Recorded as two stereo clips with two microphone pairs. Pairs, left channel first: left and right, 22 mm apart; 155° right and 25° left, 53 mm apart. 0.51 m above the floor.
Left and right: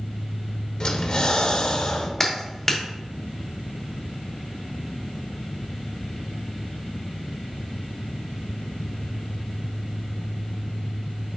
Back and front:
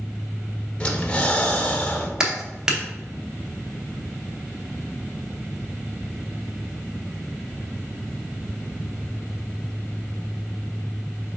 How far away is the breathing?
About 0.6 m.